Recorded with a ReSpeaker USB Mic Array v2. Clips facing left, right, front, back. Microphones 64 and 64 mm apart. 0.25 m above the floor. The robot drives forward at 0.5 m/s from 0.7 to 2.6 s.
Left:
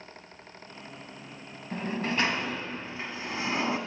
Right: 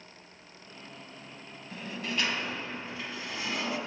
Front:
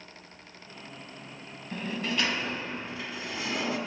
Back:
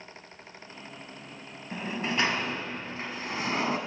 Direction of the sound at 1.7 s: 110° left.